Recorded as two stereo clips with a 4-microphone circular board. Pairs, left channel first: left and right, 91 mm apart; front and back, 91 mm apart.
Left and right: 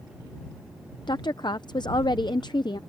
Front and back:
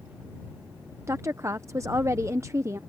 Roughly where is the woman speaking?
Behind left.